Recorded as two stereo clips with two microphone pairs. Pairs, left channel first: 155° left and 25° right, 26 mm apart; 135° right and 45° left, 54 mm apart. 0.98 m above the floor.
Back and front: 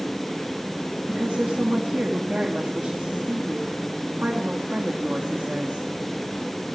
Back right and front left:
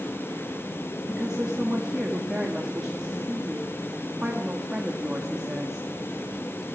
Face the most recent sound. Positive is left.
turn(degrees=-30)